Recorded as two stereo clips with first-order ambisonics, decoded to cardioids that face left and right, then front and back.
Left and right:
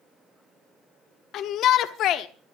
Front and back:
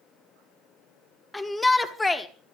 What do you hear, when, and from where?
1.3 s a shout: 80° left, 1.0 m